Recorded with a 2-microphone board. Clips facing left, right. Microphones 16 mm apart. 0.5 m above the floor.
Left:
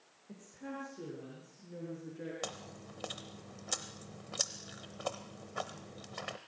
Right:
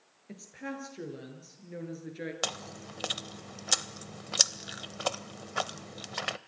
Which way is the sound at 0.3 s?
85° right.